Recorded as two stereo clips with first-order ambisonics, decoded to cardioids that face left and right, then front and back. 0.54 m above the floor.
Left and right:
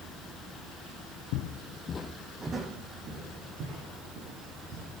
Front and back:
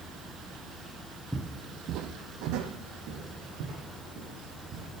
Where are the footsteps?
100° left, 1.1 m; by 4.9 s 135° right, 4.5 m.